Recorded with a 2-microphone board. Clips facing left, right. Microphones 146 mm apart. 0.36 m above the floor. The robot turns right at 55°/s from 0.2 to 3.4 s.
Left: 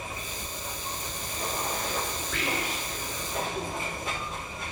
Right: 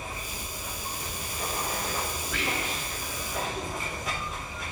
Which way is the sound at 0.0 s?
145° right.